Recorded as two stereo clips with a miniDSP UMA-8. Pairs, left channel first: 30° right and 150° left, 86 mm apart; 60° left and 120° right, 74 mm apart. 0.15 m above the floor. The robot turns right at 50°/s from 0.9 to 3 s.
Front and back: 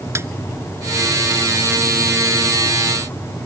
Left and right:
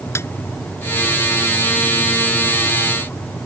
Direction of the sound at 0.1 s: 105° left.